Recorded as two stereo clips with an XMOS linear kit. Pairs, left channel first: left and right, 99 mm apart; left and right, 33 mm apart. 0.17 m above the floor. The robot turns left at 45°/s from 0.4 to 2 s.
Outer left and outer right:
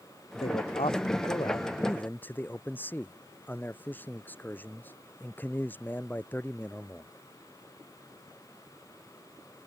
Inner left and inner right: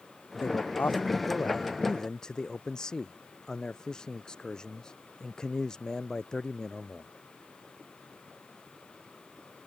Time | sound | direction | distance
0.4 | a man speaking | 90° left | ?